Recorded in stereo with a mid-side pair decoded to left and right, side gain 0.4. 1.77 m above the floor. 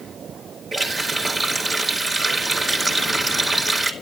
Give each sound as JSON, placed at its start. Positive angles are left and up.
{"t": 0.7, "sound": "a running tap", "azimuth_deg": -40, "distance_m": 4.0}